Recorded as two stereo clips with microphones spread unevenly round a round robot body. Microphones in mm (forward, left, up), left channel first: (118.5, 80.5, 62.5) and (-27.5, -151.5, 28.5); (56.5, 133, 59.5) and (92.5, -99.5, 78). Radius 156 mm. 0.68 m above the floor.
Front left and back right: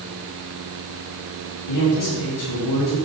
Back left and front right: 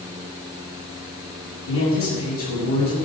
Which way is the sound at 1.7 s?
75° left.